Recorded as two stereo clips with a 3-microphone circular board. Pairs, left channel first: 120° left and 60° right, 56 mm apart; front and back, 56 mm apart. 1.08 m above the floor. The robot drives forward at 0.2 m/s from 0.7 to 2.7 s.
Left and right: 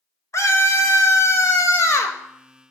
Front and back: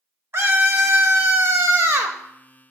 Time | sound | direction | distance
0.3 | a scream | 140° left | 1.3 m